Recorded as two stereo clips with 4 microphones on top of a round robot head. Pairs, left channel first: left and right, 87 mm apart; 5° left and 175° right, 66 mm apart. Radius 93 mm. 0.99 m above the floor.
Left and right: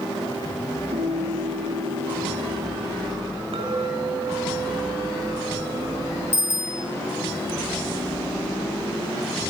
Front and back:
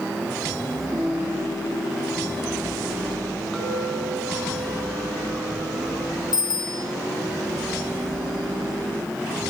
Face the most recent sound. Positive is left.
turn(degrees=25)